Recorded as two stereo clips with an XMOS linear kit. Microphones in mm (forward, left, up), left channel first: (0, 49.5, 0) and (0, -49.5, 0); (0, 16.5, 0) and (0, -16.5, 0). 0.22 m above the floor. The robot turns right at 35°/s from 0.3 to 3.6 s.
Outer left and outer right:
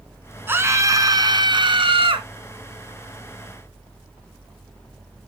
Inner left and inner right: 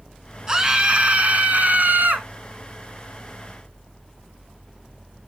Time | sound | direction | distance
0.5 | a scream | 155° right | 2.5 m